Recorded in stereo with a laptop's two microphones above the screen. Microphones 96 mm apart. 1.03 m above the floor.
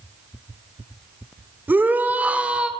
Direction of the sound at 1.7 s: 20° right (ahead or behind).